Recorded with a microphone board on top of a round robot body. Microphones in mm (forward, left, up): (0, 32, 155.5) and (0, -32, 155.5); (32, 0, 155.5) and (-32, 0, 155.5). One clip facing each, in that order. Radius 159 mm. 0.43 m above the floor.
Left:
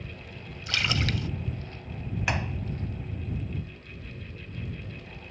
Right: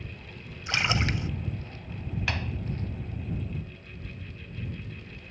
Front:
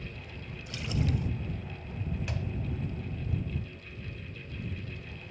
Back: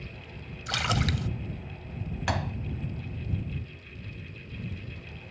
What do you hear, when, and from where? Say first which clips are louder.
0.7 s a splash: right 1 dB, back 5 dB; 155° right
2.3 s a door slam: left 3 dB, back 7 dB; 165° left